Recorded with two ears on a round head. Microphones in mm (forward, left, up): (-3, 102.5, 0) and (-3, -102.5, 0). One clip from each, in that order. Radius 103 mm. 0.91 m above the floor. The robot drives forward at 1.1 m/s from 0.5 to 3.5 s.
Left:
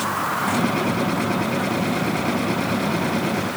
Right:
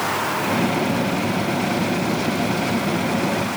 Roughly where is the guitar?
I don't hear a guitar.